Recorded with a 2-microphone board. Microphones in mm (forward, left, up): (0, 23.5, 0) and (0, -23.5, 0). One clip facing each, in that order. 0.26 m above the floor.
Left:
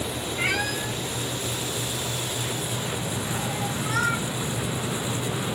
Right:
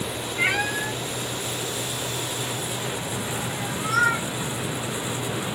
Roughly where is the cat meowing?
Centre.